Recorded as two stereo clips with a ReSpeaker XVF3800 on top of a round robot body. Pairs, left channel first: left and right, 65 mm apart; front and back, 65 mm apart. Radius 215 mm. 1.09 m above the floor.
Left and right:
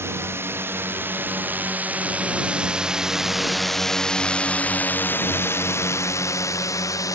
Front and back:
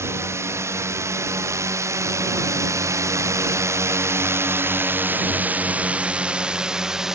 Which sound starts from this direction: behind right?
A drone, at 0.0 s.